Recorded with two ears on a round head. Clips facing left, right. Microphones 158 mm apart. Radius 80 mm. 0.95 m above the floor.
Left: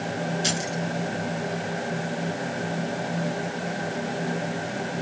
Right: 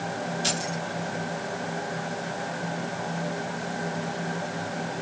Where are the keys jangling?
20° left (ahead or behind), 7 m.